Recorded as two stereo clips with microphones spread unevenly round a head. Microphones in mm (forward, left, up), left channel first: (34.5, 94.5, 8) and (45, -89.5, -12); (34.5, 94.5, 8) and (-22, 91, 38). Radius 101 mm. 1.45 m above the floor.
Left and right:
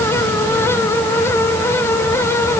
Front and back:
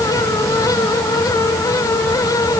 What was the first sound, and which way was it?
Only background noise.